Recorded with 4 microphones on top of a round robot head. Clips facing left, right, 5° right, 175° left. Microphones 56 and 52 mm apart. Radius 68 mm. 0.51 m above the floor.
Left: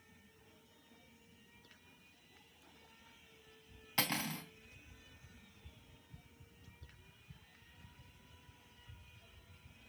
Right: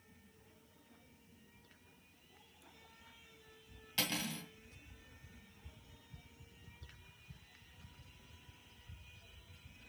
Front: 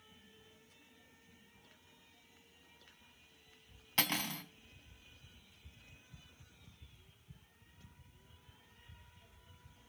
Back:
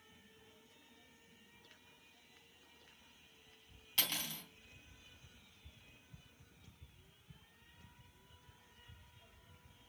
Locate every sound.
4.0 s cutlery clinking: 40° left, 3 m